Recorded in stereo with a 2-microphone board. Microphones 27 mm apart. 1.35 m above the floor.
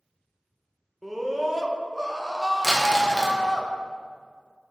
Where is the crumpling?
5° left (ahead or behind), 1.2 m.